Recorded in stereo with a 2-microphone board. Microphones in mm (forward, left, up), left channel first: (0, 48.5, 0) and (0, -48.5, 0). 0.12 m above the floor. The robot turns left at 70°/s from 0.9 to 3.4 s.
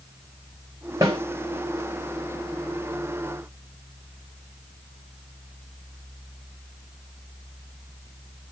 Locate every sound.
1.0 s a snare drum: 35° right (ahead or behind), 2.5 m; by 1.2 s 20° right (ahead or behind), 2.5 m